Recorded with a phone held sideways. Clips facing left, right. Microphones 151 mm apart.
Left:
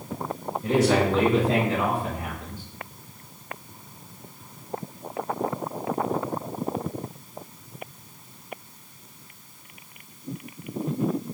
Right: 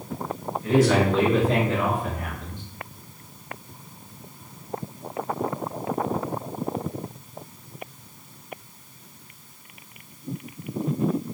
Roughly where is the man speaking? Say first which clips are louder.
Right 1 dB; left.